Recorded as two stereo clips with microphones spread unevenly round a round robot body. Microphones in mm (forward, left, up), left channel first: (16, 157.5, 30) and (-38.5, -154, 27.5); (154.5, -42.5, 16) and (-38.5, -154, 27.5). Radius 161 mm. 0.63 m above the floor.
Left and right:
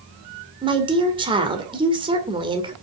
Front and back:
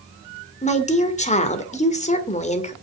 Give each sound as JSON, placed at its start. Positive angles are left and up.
{"t": 0.6, "sound": "a woman speaking", "azimuth_deg": -25, "distance_m": 2.0}